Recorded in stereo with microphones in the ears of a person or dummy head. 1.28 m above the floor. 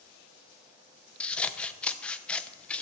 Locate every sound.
1.2 s scissors: 5° left (ahead or behind), 0.7 m